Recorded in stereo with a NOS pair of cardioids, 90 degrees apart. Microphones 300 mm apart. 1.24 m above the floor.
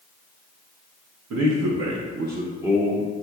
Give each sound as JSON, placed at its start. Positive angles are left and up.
{"t": 1.3, "sound": "a man speaking", "azimuth_deg": -70, "distance_m": 0.9}